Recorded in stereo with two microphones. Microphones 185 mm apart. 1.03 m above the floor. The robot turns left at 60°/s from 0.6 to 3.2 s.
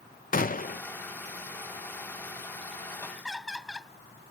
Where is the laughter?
10° left (ahead or behind); by 3.9 s centre (ahead or behind).